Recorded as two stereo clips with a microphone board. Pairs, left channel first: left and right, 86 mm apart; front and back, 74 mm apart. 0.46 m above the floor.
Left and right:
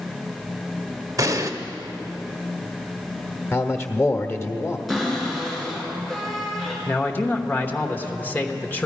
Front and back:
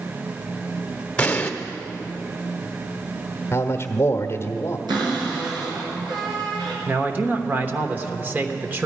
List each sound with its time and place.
1.2 s an explosion: 65° right, 0.8 m
3.5 s a man speaking: 45° left, 1.0 m
4.9 s a cupboard door: straight behind, 4 m
6.8 s a man speaking: 135° left, 1.0 m